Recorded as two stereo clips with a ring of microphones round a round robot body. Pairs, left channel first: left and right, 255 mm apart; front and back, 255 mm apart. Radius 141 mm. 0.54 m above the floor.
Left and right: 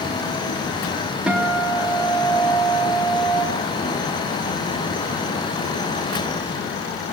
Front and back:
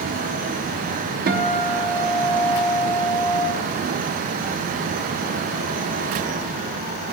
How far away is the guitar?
About 1.0 m.